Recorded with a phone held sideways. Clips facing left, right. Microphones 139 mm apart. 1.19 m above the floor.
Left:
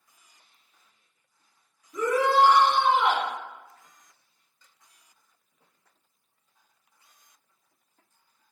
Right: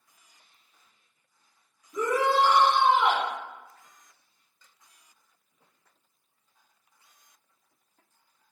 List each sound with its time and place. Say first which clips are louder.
1.9 s a shout: left 2 dB; 25° right (ahead or behind), 1.6 m